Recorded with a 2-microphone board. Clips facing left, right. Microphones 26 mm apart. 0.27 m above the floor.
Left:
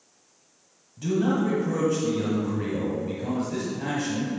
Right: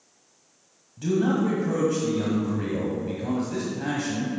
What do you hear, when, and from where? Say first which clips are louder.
1.0 s a man speaking: right 1 dB; 5° right (ahead or behind), 1.3 m